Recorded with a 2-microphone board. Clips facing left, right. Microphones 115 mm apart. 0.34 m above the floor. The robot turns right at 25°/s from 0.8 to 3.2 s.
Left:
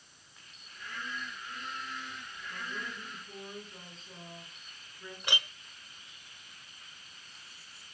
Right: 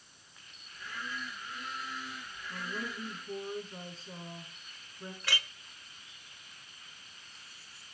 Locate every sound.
2.5 s a woman speaking: 15° right (ahead or behind), 5 m; by 5.1 s 35° right (ahead or behind), 5 m
5.2 s a clink: 20° left (ahead or behind), 0.8 m